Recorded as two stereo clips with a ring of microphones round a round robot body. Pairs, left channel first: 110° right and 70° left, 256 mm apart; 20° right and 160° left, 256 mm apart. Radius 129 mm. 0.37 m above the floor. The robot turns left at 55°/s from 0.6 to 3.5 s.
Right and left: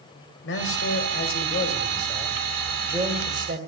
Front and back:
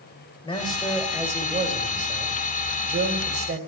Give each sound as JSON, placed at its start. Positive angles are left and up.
{"t": 0.4, "sound": "a man speaking", "azimuth_deg": -90, "distance_m": 2.0}